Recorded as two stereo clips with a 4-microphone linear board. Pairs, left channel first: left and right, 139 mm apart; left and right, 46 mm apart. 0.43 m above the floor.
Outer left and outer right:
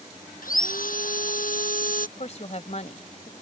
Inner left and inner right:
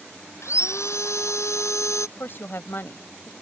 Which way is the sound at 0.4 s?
85° left.